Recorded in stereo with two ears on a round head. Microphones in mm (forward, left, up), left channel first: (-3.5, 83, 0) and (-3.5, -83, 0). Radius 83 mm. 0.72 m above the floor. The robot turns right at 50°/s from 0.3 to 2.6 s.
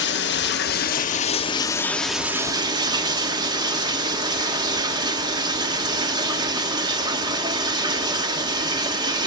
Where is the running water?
90° left, 1.0 m; by 9.3 s 155° right, 1.0 m.